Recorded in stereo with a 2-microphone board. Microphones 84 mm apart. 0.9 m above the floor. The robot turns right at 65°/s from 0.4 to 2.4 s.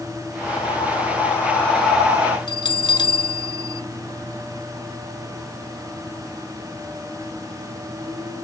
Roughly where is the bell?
Left.